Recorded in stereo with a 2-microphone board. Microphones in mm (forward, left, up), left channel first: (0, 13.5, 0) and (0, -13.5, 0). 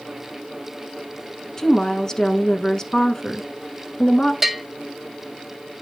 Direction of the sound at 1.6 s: 25° left (ahead or behind).